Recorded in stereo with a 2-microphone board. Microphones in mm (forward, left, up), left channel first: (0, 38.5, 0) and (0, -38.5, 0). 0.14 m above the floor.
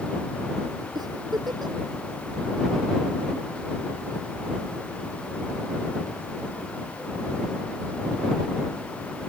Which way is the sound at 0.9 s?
65° right (ahead or behind).